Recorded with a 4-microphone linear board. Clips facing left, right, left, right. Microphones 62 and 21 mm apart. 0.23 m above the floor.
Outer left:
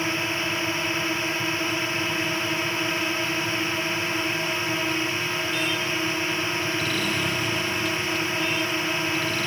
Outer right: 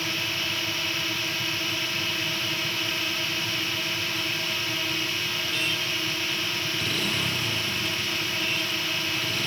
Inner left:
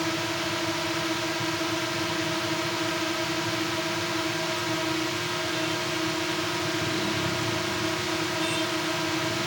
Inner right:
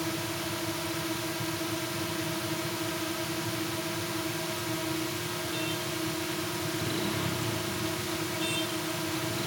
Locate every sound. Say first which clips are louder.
0.0 s a drone: outer left 4 dB, inner left 5 dB; 25° left (ahead or behind)